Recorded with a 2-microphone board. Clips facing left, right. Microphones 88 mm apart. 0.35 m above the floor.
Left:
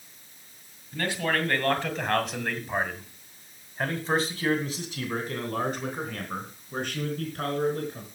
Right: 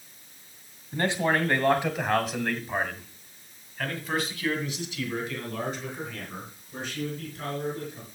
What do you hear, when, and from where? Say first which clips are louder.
0.9 s a man speaking: right 3 dB; 30° right (ahead or behind), 2 m; by 8.1 s 65° left (ahead or behind), 4.5 m